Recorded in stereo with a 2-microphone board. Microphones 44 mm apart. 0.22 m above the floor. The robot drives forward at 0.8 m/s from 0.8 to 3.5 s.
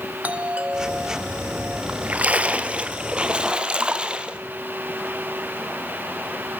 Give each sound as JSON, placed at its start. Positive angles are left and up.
{"t": 0.2, "sound": "a doorbell", "side_deg": -35, "distance_m": 3.0}
{"t": 1.9, "sound": "a splash", "side_deg": -35, "distance_m": 2.0}